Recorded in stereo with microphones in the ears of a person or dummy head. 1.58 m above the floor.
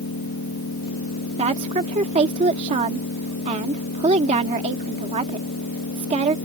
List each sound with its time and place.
0.0 s an engine running: 75° left (ahead or behind)
1.4 s a woman speaking: 40° right (ahead or behind)